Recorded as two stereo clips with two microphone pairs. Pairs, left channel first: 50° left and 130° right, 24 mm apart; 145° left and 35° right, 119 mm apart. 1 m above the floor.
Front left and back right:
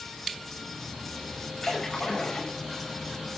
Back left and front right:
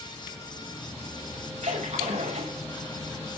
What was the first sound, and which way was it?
A splash, 25° right.